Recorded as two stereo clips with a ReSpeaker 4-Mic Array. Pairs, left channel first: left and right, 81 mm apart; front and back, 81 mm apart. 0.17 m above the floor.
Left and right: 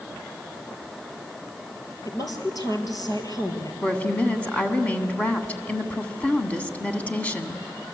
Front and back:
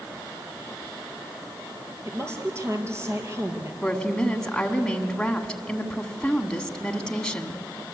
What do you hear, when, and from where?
2.0 s a woman speaking: 125° left, 3.5 m
3.8 s a woman speaking: 60° left, 1.7 m